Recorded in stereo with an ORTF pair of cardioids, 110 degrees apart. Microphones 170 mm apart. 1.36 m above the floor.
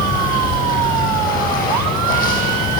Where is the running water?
55° left, 8 m.